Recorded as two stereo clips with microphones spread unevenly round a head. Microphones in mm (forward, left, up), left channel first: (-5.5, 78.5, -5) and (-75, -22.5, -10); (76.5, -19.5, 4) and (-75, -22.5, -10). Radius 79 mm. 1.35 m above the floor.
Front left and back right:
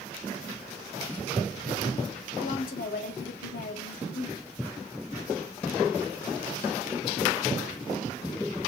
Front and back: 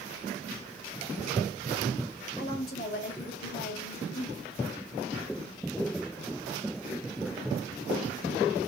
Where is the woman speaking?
35° left, 3 m.